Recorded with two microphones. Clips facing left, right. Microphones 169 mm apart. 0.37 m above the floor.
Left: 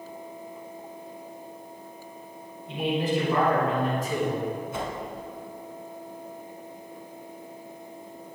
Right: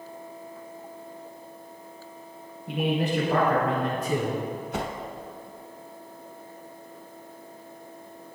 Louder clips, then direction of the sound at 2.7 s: Even; 75° right (ahead or behind).